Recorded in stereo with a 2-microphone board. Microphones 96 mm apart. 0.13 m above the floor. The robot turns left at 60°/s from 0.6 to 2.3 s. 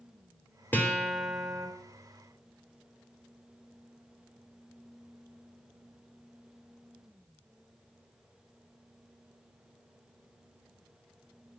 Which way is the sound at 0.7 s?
25° left.